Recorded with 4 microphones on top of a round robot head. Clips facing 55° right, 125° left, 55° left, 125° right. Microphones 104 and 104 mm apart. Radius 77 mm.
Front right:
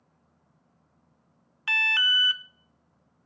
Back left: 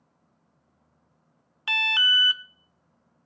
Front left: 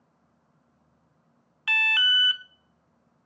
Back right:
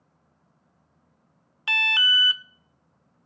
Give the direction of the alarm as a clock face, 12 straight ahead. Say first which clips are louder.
Back left 1 dB, back right 1 dB; 6 o'clock.